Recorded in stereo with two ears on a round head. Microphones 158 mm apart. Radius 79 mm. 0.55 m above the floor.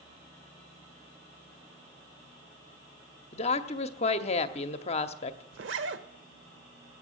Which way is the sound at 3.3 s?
35° left (ahead or behind).